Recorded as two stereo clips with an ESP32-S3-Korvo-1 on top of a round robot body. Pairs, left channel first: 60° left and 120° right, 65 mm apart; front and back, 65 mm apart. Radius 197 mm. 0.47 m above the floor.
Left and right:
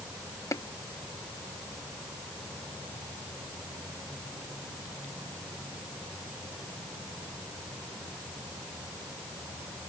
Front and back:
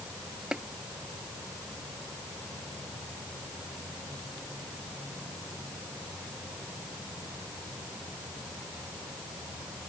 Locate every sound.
0.5 s tapping: 100° left